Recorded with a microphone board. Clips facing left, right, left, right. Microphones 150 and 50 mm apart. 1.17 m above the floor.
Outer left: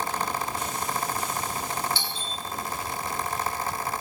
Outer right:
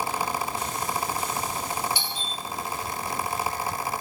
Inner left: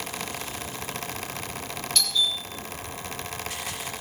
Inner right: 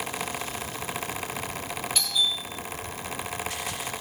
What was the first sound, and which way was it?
A doorbell, 15° right (ahead or behind).